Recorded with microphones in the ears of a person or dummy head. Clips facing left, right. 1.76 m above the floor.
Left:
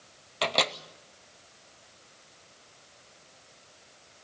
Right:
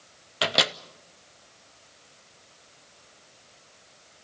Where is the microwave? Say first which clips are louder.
Right 1 dB; 10° right (ahead or behind), 0.7 m.